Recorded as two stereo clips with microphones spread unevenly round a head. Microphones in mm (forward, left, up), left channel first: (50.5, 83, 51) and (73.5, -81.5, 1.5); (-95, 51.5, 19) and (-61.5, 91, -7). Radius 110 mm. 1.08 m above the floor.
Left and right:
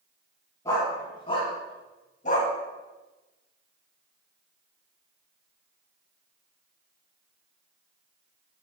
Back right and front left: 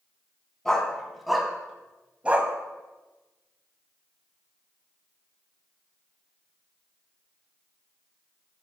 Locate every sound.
0.7 s a dog barking: 165° left, 2 m; by 2.5 s 120° left, 1.5 m